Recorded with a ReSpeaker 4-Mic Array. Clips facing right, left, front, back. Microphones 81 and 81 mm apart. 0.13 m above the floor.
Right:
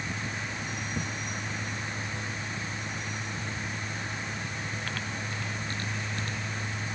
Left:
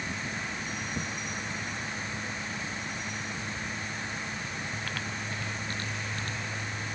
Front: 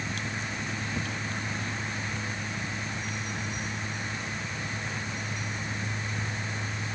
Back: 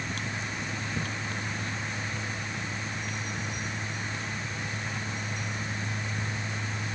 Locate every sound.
Only background noise.